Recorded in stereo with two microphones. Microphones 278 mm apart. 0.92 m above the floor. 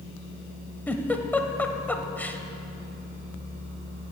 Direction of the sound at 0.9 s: 5° left (ahead or behind).